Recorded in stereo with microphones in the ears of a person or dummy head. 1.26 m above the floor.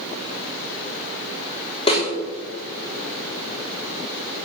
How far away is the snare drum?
About 3.5 m.